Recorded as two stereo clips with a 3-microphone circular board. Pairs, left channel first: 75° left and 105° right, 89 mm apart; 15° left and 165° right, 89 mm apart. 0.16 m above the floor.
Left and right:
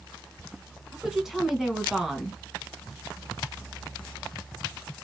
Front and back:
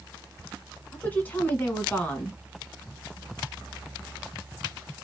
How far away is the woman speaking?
About 1.2 m.